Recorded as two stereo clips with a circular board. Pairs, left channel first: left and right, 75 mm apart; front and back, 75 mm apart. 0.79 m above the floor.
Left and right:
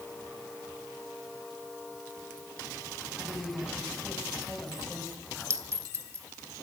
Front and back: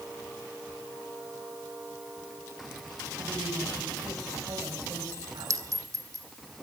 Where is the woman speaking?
175° right, 5.5 m; by 5.8 s 170° left, 4.5 m.